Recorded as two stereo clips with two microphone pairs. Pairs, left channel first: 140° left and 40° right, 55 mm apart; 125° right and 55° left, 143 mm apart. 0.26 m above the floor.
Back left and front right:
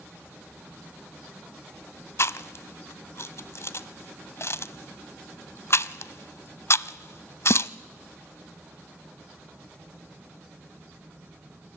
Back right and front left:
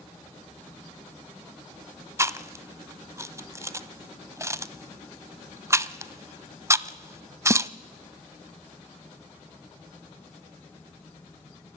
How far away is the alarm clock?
No alarm clock in this recording.